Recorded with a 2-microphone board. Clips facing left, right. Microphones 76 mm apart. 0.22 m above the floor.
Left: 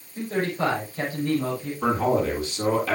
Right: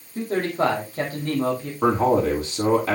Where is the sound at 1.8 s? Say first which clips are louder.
Right 4 dB; 30° right (ahead or behind), 8.5 m.